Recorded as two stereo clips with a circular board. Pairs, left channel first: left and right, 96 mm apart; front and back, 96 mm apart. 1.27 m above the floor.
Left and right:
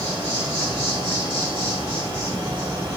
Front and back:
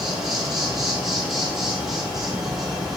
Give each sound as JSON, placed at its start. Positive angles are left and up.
{"t": 0.0, "sound": "an insect", "azimuth_deg": -95, "distance_m": 3.0}